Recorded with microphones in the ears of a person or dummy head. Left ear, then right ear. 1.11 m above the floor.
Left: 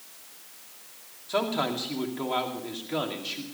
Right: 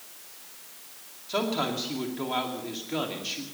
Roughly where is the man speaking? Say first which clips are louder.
Left 1 dB; centre.